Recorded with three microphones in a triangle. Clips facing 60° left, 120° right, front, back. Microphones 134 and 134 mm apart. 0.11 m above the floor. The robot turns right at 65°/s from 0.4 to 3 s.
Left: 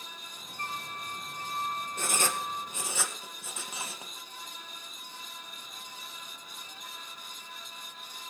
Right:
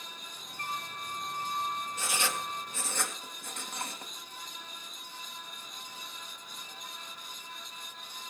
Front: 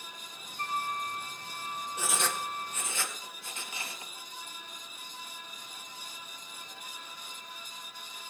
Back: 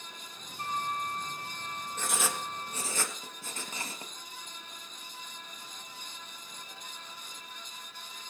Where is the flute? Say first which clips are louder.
Even, even; 5° left, 2 m; by 3.0 s 160° left, 2 m.